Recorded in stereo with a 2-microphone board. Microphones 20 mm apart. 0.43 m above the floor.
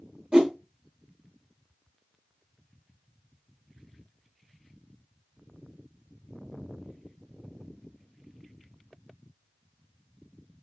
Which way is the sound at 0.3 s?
45° right (ahead or behind).